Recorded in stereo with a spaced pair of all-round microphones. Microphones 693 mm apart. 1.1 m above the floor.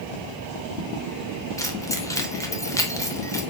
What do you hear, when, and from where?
1.6 s keys jangling: 5° left (ahead or behind), 2.5 m